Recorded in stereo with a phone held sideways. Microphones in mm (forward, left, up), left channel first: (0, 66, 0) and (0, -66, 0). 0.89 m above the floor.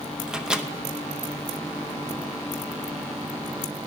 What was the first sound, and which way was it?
A microwave, 5° right (ahead or behind).